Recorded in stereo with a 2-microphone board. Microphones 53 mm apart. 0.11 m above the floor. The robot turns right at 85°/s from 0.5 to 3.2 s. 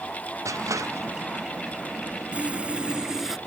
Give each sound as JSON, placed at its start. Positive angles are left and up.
{"t": 0.5, "sound": "crushing", "side_deg": -80}
{"t": 2.3, "sound": "sawing", "side_deg": -25}